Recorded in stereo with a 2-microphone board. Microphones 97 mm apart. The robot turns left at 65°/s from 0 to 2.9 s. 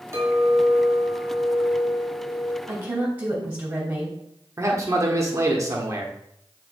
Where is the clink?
30° right, 2.0 m; by 2.6 s 170° left, 2.0 m.